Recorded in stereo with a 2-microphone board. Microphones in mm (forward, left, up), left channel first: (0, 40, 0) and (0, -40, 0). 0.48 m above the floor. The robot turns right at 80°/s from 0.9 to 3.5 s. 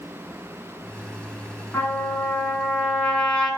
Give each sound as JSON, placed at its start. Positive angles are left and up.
{"t": 1.7, "sound": "a trumpet", "azimuth_deg": 35, "distance_m": 1.2}